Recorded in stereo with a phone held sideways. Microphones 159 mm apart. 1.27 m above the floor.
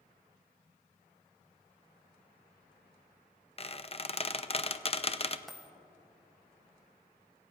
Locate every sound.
3.6 s a squeak: 40° left (ahead or behind), 0.5 m
5.5 s a dropped coin: centre (ahead or behind), 1.3 m